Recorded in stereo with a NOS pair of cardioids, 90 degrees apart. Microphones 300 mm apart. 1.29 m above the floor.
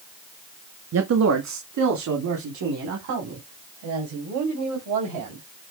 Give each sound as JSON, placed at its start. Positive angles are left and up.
{"t": 0.9, "sound": "a man speaking", "azimuth_deg": -55, "distance_m": 1.9}